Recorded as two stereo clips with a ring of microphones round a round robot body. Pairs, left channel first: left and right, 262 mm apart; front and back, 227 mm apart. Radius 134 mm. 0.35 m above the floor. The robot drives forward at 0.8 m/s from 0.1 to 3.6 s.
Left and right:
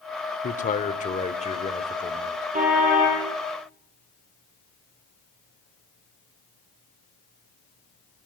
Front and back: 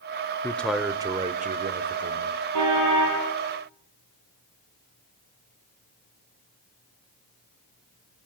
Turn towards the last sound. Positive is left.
turn(degrees=-155)